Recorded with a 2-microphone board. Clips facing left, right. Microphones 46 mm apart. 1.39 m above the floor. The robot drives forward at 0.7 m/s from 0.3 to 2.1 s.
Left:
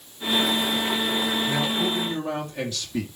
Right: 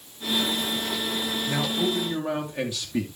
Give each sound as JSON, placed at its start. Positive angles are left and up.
{"t": 1.5, "sound": "a man speaking", "side_deg": -15, "distance_m": 2.5}